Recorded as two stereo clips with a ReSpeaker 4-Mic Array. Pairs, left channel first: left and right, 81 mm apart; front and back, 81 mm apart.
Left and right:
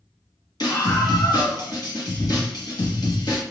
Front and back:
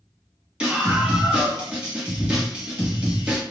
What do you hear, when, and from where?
0.6 s a scream: 105° left, 1.3 m